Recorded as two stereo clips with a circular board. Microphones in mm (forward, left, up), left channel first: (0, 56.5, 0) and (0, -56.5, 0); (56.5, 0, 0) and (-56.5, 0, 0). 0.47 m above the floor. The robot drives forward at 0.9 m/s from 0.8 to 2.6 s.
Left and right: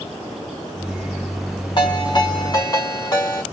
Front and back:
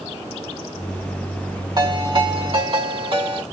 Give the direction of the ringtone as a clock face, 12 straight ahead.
8 o'clock.